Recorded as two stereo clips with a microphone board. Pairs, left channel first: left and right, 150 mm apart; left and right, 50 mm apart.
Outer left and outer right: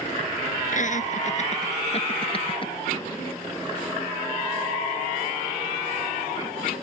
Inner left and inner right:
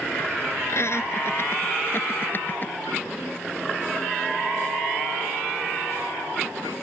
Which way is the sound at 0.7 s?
60° left (ahead or behind).